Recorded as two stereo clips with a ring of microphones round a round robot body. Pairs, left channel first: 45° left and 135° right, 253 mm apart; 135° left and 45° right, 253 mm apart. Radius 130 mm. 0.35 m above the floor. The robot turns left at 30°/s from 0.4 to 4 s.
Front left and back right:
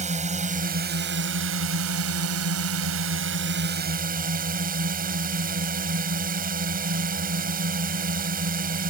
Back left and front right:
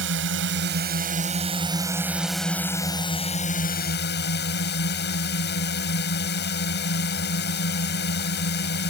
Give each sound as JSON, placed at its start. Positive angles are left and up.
{"t": 0.0, "sound": "a drone", "azimuth_deg": -75}